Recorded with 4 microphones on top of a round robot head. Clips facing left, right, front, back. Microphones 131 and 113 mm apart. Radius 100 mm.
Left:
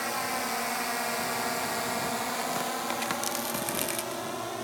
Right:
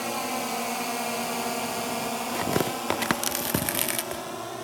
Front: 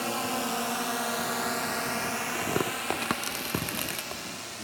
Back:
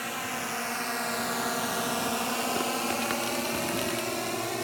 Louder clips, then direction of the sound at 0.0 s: Right 2 dB, front 4 dB; 35° right.